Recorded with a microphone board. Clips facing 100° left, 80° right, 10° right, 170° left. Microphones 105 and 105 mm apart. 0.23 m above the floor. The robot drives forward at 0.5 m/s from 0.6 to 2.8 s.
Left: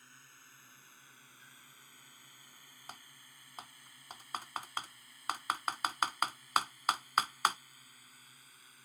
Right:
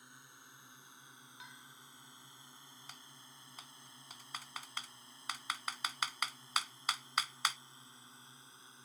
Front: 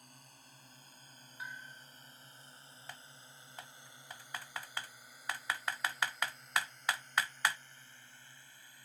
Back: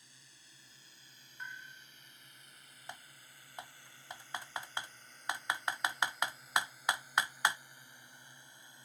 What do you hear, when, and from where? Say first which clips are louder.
0.0 s a drone: right 2 dB, front 6 dB; 10° right; by 8.9 s 135° right
1.4 s a bell: right 5 dB, even; 95° right
2.9 s typing on a keyboard: left 8 dB, back 3 dB; 105° left